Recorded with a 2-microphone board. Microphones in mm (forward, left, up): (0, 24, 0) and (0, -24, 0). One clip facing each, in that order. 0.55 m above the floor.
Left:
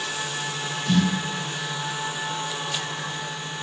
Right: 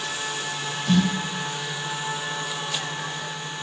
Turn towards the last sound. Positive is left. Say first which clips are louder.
# right 1 dB
turn(degrees=-15)  # may be behind; listen again after turning